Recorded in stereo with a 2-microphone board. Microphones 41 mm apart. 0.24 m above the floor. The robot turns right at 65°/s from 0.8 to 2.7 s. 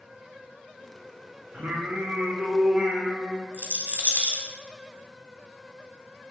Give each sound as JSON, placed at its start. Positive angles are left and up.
{"t": 1.5, "sound": "singing", "azimuth_deg": -100, "distance_m": 0.8}
{"t": 3.5, "sound": "a rattle", "side_deg": -50, "distance_m": 0.6}